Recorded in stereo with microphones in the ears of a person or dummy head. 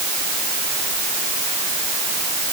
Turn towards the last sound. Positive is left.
No sound to turn to.